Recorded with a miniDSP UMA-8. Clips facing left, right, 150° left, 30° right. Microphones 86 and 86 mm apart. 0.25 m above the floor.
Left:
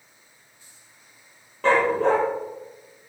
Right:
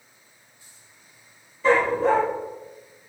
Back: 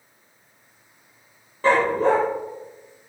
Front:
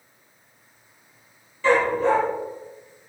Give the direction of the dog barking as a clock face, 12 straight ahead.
9 o'clock.